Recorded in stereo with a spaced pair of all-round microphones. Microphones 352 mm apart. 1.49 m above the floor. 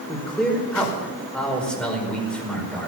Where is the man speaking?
5° left (ahead or behind), 5 m.